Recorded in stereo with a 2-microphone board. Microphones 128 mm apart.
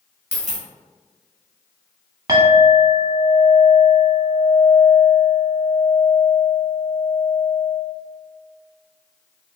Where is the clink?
30° right (ahead or behind), 1.0 m.